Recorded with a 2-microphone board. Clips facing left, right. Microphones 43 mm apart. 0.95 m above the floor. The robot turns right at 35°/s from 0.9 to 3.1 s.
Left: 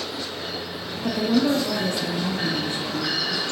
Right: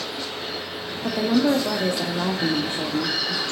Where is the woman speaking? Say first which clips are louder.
Right 1 dB; 170° right, 1.2 m; by 3.4 s 95° right, 1.2 m.